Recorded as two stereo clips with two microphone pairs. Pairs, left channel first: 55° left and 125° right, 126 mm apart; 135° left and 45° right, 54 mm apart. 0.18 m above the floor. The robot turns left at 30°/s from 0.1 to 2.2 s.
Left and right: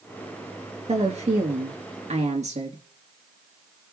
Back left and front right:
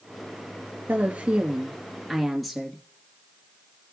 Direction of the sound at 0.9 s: 95° right.